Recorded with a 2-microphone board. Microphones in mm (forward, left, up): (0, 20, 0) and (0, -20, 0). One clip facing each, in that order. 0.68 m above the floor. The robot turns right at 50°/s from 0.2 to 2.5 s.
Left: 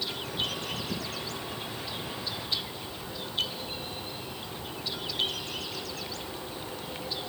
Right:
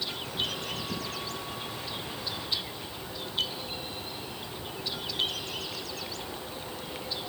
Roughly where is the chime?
No chime in this recording.